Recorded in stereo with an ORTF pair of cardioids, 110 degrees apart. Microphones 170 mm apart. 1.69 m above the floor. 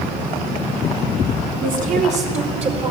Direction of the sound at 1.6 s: 60° right.